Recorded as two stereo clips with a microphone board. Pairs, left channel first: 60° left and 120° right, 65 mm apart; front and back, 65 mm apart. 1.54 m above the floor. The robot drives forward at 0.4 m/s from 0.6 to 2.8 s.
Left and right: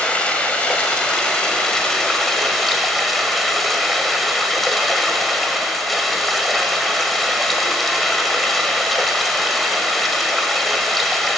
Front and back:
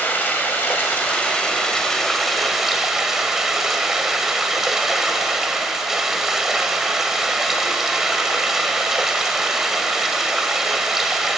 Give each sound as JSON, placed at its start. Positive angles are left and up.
{"t": 0.0, "sound": "running water", "azimuth_deg": 5, "distance_m": 1.5}